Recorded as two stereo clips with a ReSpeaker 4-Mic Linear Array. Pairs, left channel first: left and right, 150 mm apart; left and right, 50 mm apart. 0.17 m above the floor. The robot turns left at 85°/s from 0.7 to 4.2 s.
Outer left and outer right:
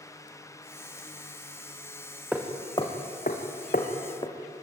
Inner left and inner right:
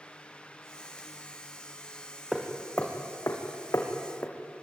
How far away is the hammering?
About 4 m.